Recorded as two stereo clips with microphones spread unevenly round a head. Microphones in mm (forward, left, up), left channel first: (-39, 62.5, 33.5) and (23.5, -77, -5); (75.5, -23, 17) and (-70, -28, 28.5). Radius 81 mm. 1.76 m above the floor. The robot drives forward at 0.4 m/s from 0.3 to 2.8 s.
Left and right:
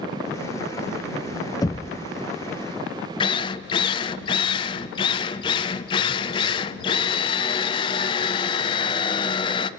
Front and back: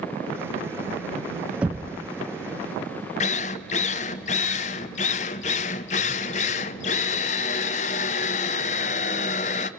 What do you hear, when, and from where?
1.6 s knocking: 110° left, 0.6 m; by 2.0 s 130° left, 0.7 m
3.2 s a drill: 50° left, 0.7 m